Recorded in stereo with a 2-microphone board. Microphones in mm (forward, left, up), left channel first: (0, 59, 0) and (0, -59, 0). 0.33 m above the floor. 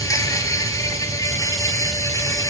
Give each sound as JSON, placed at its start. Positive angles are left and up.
{"t": 0.0, "sound": "an insect", "side_deg": 30, "distance_m": 1.1}